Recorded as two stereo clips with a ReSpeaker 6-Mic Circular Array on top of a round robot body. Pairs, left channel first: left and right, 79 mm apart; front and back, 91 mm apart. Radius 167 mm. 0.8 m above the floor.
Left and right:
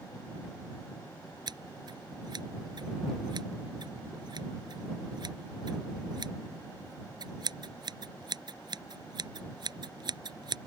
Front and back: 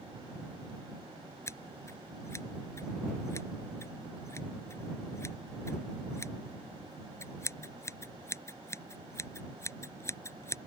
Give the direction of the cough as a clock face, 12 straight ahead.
I don't hear a cough.